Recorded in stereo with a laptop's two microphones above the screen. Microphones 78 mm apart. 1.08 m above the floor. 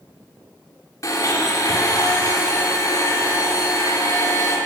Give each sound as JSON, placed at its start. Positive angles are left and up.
{"t": 1.0, "sound": "a blender", "side_deg": 45, "distance_m": 2.0}